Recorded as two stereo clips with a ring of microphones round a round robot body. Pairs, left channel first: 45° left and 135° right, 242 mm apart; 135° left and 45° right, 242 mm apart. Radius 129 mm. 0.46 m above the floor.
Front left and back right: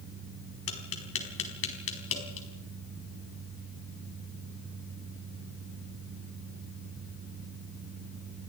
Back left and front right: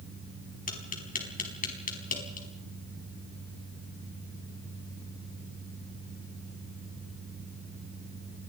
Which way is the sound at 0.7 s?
80° left.